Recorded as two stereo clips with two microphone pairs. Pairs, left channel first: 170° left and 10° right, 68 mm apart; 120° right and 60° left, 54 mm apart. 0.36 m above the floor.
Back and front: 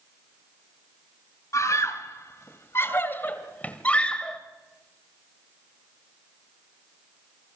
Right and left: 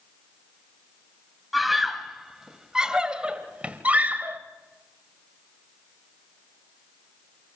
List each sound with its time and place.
1.5 s a scream: 150° left, 2.5 m; by 4.4 s 95° left, 1.9 m